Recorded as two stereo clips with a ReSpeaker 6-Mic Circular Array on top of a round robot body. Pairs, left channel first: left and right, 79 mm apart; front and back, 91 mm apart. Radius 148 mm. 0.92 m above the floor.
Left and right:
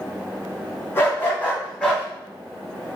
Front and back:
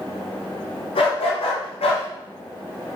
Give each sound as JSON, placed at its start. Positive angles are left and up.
{"t": 0.9, "sound": "a dog barking", "azimuth_deg": 30, "distance_m": 2.5}